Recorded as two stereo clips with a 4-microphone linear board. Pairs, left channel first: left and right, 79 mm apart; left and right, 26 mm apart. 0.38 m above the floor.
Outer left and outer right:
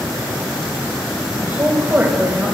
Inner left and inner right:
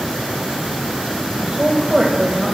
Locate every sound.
1.4 s a woman speaking: 25° right (ahead or behind), 1.8 m